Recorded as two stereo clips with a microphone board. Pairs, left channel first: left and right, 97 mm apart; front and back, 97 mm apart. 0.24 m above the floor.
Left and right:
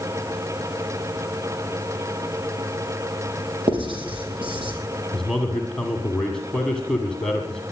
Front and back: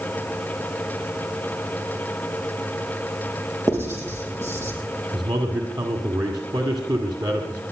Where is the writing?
115° right, 4.5 m.